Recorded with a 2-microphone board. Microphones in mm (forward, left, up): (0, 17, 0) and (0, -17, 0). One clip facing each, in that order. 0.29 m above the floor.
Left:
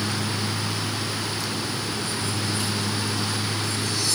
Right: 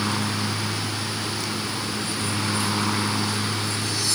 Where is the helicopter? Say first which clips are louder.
Right 2 dB; 55° right (ahead or behind).